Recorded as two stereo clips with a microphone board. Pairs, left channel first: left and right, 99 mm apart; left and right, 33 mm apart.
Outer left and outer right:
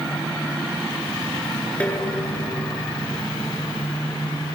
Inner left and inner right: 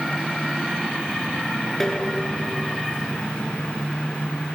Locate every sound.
1.8 s dishes clattering: 10° left (ahead or behind), 4 m